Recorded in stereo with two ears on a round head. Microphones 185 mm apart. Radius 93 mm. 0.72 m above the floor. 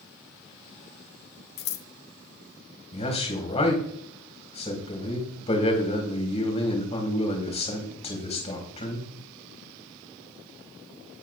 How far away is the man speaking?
About 4.5 m.